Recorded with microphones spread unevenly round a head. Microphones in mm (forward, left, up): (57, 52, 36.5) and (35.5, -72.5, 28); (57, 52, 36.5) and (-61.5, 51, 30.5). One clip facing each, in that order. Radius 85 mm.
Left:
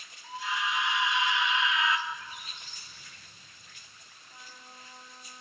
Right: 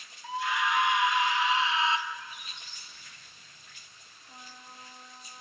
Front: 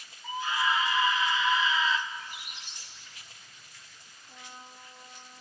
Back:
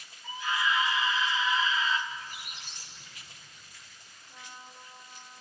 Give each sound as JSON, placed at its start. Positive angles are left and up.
{"t": 0.2, "sound": "a scream", "azimuth_deg": -75, "distance_m": 3.0}
{"t": 2.1, "sound": "a squeak", "azimuth_deg": 140, "distance_m": 1.5}
{"t": 4.3, "sound": "a trumpet", "azimuth_deg": -50, "distance_m": 3.0}